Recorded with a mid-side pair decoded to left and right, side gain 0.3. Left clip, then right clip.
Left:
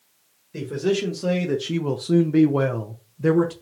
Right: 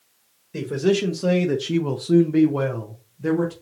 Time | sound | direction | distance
0.5 | a man speaking | 40° right | 1.1 m